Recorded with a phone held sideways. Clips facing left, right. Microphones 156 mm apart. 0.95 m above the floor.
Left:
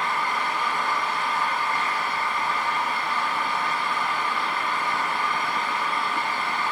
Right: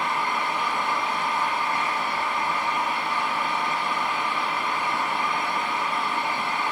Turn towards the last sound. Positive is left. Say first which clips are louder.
# even
turn(degrees=-20)  # may be behind; listen again after turning